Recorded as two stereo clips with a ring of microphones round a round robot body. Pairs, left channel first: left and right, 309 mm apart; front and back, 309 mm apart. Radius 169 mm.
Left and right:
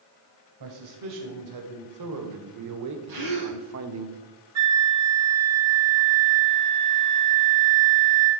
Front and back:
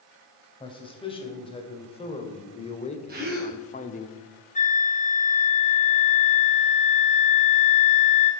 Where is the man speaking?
75° right, 3 m; by 4.1 s 60° right, 1.3 m.